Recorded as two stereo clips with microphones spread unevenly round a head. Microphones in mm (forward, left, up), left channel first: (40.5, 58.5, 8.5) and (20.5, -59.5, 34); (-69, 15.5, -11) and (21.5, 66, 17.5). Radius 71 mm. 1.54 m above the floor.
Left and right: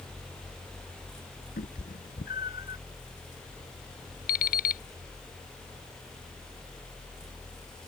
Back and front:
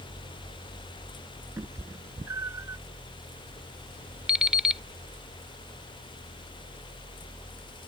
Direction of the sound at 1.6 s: 90° left.